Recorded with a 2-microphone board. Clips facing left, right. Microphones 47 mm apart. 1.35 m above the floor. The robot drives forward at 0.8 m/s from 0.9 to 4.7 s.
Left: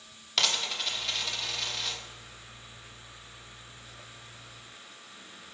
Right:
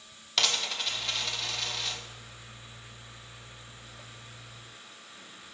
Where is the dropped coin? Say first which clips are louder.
Even; centre (ahead or behind), 0.9 m.